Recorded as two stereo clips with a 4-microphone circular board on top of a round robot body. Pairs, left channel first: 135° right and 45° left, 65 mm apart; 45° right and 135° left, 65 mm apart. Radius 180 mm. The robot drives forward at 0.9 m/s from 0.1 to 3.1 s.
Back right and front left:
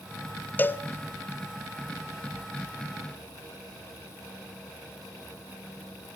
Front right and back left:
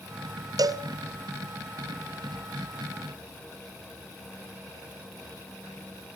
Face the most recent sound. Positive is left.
turn(degrees=175)